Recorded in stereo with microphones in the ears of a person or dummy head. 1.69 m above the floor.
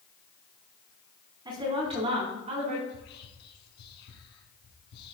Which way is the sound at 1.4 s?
35° right (ahead or behind).